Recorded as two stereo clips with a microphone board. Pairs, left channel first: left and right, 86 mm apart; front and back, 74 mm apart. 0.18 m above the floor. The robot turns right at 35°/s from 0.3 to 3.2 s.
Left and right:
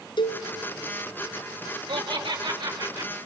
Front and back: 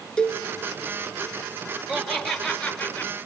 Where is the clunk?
No clunk in this recording.